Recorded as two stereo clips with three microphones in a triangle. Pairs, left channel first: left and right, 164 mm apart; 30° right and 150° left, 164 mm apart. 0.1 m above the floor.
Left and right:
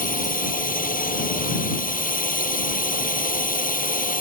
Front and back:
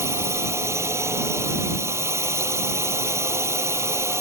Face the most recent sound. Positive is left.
turn(degrees=80)